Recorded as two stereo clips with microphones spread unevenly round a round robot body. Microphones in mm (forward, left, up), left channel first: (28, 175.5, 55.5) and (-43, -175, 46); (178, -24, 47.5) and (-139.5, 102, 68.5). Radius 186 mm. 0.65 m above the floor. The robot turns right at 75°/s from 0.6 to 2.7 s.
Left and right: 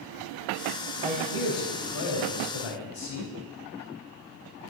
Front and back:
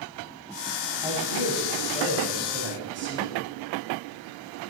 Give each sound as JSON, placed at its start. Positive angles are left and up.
{"t": 1.0, "sound": "a man speaking", "azimuth_deg": -25, "distance_m": 5.0}